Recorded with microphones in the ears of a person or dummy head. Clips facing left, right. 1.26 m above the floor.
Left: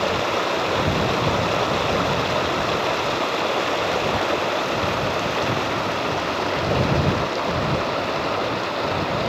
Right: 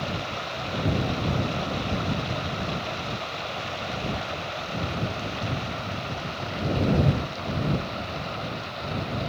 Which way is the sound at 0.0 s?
85° left.